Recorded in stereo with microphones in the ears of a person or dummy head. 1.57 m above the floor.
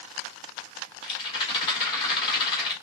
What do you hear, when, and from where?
1.0 s a rattle: 30° left (ahead or behind), 2 m